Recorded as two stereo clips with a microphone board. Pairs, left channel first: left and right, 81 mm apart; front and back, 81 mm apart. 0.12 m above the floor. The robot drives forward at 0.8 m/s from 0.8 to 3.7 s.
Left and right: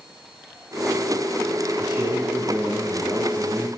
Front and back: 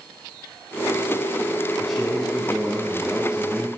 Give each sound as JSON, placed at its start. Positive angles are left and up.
{"t": 1.8, "sound": "a man speaking", "azimuth_deg": -90, "distance_m": 6.0}